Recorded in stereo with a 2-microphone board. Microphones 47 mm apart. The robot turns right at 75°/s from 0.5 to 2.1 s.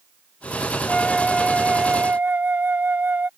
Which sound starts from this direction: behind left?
A flute, at 0.9 s.